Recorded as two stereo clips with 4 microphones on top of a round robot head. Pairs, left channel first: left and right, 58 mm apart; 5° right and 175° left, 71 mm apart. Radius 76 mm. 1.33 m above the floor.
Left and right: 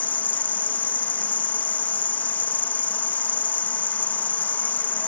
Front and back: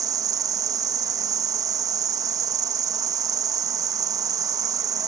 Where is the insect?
145° left.